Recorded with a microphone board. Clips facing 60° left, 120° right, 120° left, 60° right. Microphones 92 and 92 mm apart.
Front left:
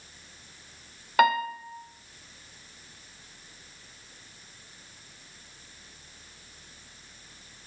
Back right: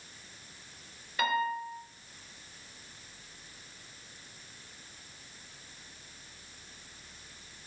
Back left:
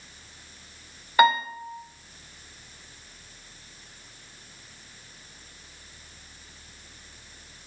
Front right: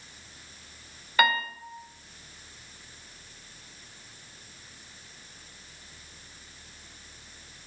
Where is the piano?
55° left, 0.7 m.